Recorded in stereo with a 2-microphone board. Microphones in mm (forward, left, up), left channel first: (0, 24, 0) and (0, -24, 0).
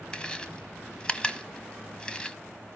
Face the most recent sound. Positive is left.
turn(degrees=20)  # may be behind; listen again after turning